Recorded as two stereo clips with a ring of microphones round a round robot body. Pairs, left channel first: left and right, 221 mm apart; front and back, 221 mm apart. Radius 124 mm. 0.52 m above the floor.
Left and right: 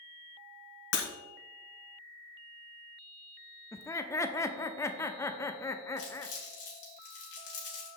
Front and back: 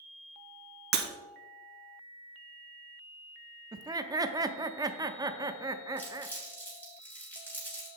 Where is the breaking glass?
135° left, 1.1 m.